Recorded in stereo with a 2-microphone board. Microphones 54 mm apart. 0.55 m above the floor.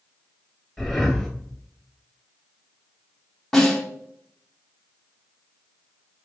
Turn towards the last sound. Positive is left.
turn(degrees=10)  # may be behind; listen again after turning